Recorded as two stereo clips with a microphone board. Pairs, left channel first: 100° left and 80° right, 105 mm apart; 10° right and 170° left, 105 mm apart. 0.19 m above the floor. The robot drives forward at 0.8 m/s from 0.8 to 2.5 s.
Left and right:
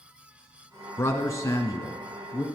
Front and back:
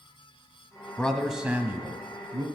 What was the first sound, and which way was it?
A man speaking, 60° left.